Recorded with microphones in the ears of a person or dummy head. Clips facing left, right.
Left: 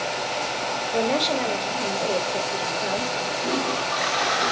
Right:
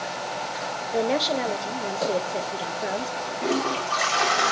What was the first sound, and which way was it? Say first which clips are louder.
A woman speaking: even; 5° right (ahead or behind).